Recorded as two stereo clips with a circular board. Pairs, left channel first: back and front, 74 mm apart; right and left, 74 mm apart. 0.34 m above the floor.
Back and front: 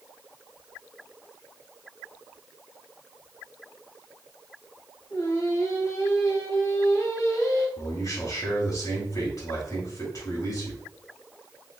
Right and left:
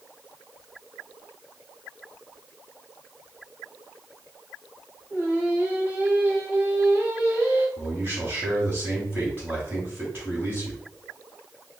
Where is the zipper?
I don't hear a zipper.